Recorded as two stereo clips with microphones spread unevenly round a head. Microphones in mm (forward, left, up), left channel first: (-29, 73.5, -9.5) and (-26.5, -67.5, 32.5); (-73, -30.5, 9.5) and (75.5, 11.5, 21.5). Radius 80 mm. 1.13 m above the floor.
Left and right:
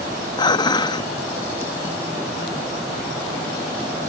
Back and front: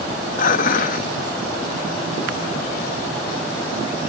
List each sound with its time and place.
0.4 s dishes clattering: 155° left